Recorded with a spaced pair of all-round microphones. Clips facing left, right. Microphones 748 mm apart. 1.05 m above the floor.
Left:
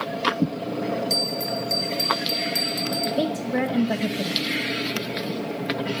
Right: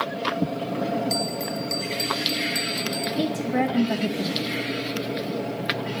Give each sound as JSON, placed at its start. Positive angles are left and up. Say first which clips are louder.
{"t": 1.1, "sound": "a bell", "louder": "even", "side_deg": 30, "distance_m": 0.7}
{"t": 3.2, "sound": "a woman speaking", "louder": "right 1 dB", "side_deg": 10, "distance_m": 0.5}